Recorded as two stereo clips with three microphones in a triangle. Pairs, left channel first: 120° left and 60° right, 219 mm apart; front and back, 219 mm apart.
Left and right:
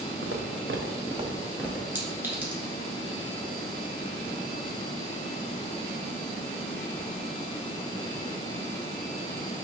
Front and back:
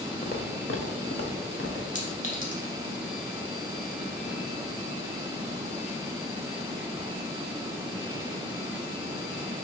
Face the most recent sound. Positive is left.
turn(degrees=15)